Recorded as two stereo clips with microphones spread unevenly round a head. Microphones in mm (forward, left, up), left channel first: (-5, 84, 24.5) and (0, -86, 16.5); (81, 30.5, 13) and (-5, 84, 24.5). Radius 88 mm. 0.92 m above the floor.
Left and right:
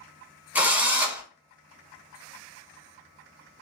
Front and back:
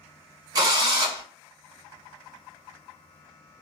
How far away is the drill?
About 0.7 m.